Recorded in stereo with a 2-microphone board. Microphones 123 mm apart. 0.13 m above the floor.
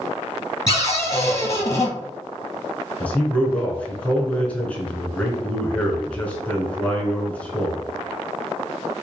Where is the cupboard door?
25° left (ahead or behind), 1.4 m.